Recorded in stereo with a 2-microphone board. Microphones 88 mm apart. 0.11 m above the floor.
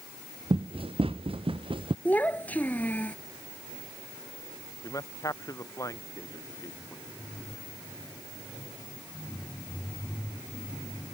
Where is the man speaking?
35° left (ahead or behind).